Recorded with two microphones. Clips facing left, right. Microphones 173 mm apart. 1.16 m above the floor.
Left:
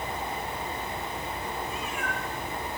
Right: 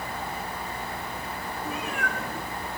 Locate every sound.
1.6 s a cat meowing: 65° right (ahead or behind), 5.5 m